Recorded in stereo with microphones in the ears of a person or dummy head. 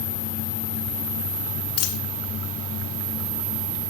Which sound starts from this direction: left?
A dropped coin, at 1.8 s.